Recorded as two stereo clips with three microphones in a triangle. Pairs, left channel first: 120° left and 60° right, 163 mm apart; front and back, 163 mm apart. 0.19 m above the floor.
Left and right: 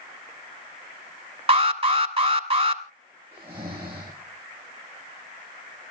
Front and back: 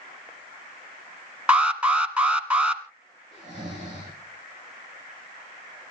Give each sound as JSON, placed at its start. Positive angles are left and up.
{"t": 1.5, "sound": "an alarm", "azimuth_deg": -100, "distance_m": 2.0}
{"t": 3.3, "sound": "snoring", "azimuth_deg": -135, "distance_m": 8.5}